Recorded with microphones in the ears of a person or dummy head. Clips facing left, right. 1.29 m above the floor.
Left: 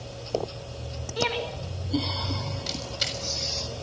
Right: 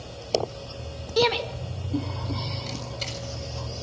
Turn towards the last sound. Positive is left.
turn(degrees=15)  # may be behind; listen again after turning